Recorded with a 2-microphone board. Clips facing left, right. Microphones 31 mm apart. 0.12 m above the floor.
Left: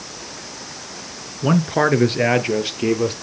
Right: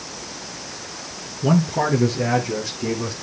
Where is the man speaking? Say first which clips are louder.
Left 2 dB; 25° left (ahead or behind), 1.1 m; by 3.1 s 65° left (ahead or behind), 3 m.